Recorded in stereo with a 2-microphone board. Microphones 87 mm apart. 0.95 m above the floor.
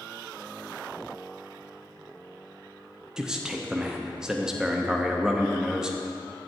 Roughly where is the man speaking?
Centre.